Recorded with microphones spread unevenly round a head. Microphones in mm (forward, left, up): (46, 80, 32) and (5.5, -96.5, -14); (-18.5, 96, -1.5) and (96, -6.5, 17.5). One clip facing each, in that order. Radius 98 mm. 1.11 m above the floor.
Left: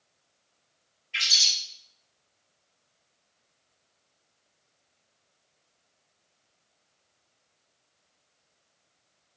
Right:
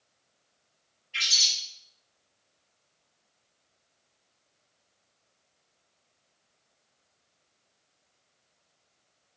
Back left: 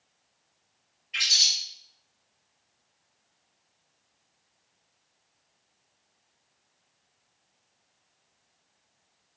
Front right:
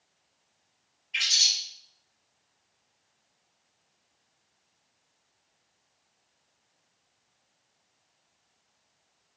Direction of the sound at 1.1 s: 145° left.